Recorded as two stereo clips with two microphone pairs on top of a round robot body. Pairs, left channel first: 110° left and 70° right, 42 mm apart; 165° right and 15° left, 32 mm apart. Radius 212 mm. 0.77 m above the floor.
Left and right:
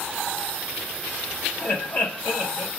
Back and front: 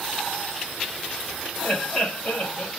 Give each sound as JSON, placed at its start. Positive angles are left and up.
{"t": 1.6, "sound": "laughter", "azimuth_deg": 145, "distance_m": 3.0}